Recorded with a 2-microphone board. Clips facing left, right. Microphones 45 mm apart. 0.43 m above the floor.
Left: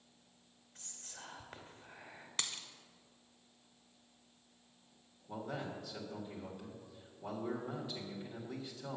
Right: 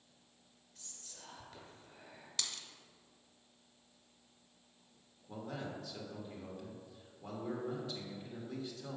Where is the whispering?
45° left (ahead or behind), 1.5 m.